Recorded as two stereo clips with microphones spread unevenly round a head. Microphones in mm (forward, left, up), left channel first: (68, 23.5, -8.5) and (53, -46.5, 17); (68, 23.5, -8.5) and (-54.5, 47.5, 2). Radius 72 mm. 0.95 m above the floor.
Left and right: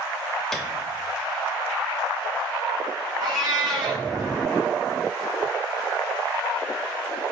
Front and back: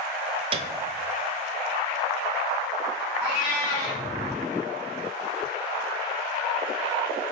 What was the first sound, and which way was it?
A piano, 140° left.